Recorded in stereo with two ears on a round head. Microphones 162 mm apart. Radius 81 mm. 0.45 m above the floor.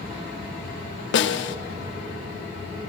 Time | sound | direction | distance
1.1 | a snare drum | 70° left (ahead or behind) | 0.6 m